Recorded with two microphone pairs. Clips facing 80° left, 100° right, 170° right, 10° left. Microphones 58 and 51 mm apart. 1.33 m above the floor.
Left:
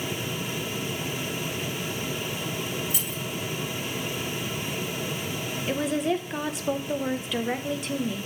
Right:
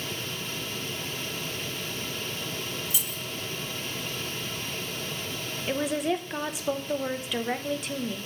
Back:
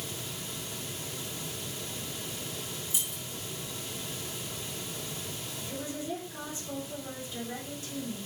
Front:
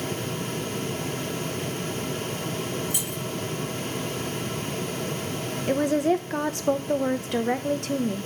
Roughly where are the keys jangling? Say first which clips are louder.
Left 3 dB, front 9 dB; ahead left.